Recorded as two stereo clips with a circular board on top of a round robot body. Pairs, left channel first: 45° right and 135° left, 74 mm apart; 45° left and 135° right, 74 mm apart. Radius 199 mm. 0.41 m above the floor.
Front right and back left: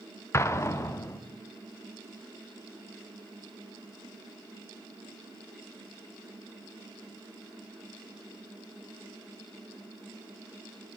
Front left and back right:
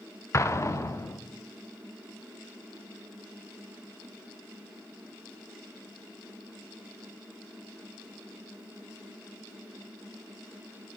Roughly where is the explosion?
Ahead.